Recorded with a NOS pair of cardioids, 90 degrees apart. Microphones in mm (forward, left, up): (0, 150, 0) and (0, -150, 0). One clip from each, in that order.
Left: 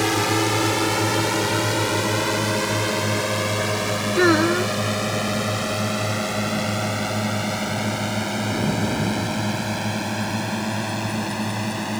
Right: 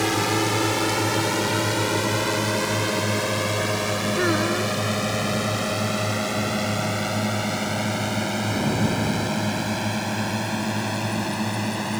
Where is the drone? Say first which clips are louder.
Left 2 dB; 20° left; by 12.0 s 5° left.